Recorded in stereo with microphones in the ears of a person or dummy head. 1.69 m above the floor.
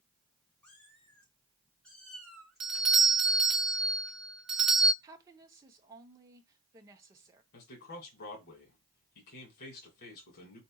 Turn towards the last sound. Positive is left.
turn(degrees=55)  # may be behind; listen again after turning